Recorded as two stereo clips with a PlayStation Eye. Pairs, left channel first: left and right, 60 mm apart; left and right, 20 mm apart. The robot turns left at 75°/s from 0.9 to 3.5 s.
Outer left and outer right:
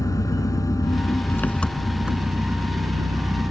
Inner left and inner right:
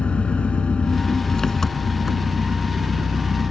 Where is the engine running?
75° left; by 3.5 s 120° right.